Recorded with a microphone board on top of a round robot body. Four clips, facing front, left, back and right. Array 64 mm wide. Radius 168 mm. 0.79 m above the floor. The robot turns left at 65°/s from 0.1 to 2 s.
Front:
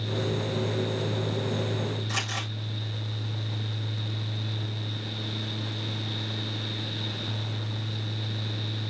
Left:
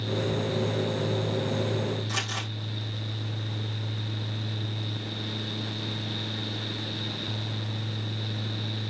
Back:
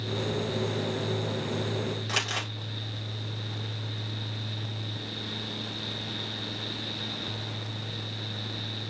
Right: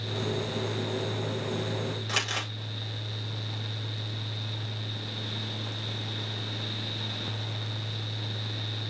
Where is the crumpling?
140° right, 4.5 m.